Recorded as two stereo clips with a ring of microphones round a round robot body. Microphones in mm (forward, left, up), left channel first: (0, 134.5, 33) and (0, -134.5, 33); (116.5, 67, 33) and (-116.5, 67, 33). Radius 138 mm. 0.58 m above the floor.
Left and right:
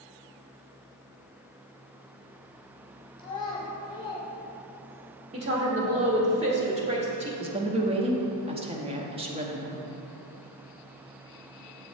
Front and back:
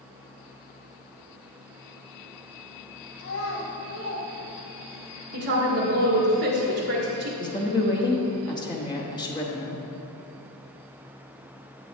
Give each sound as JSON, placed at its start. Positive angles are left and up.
{"t": 3.2, "sound": "a child speaking", "azimuth_deg": 15, "distance_m": 2.5}
{"t": 5.3, "sound": "a woman speaking", "azimuth_deg": -155, "distance_m": 1.4}
{"t": 7.4, "sound": "a woman speaking", "azimuth_deg": -50, "distance_m": 1.0}